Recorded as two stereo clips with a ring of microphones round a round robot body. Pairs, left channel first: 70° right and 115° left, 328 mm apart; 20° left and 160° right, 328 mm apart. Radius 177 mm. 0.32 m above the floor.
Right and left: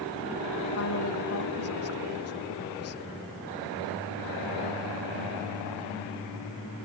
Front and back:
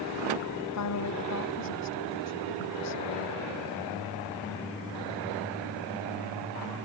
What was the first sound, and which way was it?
A woman speaking, 20° right.